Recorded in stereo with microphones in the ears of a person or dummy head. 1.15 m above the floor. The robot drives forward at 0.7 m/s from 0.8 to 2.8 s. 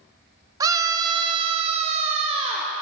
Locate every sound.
0.6 s a scream: 15° right (ahead or behind), 1.0 m; by 2.7 s 20° right (ahead or behind), 0.9 m